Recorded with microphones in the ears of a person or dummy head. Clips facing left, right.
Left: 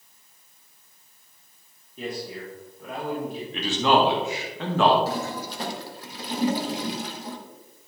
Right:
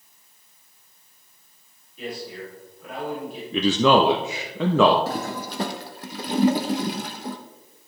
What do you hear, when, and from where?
2.0 s a man speaking: 40° left (ahead or behind), 2.5 m
3.5 s a man speaking: 70° right (ahead or behind), 0.6 m
5.1 s a toilet flushing: 55° right (ahead or behind), 0.7 m